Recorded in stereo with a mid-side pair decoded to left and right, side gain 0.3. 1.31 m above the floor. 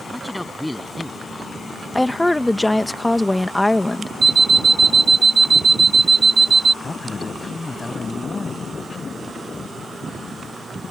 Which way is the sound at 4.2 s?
50° right.